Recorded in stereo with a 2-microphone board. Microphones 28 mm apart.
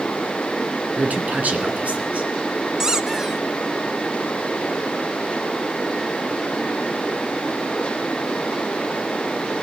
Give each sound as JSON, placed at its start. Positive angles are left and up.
{"t": 1.0, "sound": "a man speaking", "side_deg": -65, "distance_m": 2.5}
{"t": 2.8, "sound": "a squeak", "side_deg": -20, "distance_m": 0.6}